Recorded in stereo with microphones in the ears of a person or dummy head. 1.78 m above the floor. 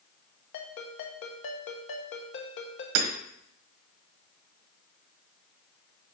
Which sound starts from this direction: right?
Hammering, at 3.0 s.